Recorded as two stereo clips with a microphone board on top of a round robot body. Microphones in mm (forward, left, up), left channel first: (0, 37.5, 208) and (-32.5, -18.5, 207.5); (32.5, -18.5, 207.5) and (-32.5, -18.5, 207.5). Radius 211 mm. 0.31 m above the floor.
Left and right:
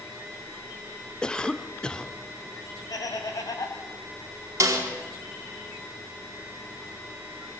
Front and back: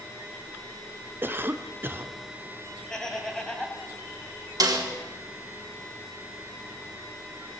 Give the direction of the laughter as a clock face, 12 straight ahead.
9 o'clock.